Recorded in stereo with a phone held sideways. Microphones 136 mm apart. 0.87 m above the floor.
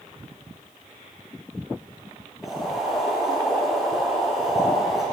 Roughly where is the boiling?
Centre.